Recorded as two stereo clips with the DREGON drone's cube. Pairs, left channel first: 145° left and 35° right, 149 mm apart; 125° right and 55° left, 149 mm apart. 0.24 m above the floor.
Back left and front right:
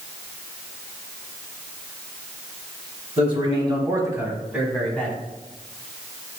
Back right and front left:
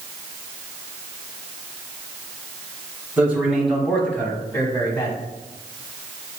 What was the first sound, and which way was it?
A man speaking, 20° right.